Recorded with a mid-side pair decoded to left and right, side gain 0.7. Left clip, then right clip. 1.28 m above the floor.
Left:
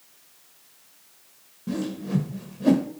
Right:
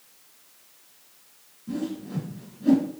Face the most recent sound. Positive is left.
turn(degrees=70)